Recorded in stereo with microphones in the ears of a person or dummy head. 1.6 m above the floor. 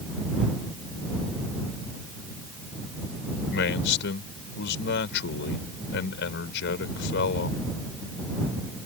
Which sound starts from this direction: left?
A man speaking, at 3.5 s.